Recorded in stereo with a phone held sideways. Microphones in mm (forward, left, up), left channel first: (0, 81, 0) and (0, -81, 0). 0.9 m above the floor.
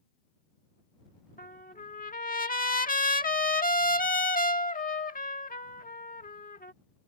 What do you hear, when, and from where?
1.4 s a trumpet: 60° left (ahead or behind)